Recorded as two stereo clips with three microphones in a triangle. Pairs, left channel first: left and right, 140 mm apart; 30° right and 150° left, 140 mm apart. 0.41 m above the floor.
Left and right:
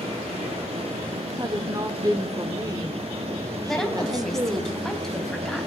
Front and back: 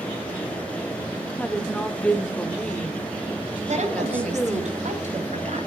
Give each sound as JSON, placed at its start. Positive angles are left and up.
{"t": 1.4, "sound": "a woman speaking", "azimuth_deg": -105, "distance_m": 0.8}
{"t": 3.7, "sound": "a woman speaking", "azimuth_deg": 175, "distance_m": 2.5}